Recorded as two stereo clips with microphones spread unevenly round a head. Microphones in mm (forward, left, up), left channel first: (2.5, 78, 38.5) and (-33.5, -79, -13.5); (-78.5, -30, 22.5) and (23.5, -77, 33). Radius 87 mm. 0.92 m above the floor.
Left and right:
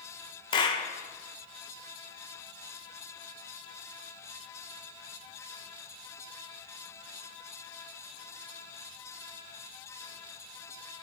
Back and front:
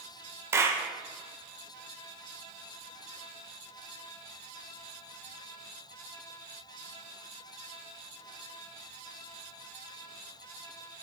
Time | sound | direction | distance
0.5 | a clap | 10° left | 0.5 m